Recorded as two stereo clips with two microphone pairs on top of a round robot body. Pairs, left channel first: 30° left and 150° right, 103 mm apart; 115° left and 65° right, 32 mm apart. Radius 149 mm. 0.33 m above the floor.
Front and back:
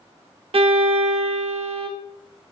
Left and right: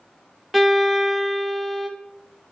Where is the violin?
145° right, 0.6 m.